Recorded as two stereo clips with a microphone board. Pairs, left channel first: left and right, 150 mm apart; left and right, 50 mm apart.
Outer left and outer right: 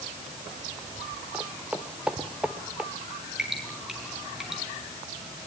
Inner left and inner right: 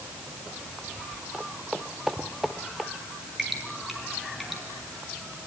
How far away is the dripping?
About 7.5 m.